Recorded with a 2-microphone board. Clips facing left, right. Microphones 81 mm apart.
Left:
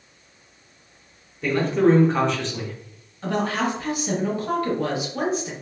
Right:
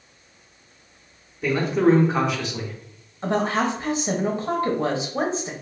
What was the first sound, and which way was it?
A man speaking, 5° right (ahead or behind).